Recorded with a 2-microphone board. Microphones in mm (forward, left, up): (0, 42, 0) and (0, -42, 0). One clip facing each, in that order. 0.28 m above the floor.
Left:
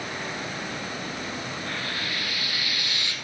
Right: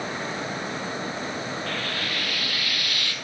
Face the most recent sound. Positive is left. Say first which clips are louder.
# right 2 dB
turn(degrees=20)  # may be behind; listen again after turning